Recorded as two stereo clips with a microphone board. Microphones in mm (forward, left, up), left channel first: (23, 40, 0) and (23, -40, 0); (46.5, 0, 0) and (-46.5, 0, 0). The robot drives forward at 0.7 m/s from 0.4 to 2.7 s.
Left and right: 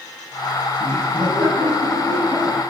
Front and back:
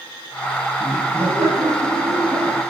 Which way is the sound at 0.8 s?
110° right.